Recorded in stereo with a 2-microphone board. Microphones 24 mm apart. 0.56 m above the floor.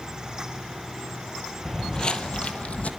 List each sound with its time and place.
1.6 s footsteps: 15° left (ahead or behind), 0.9 m; by 2.9 s 60° left (ahead or behind), 1.4 m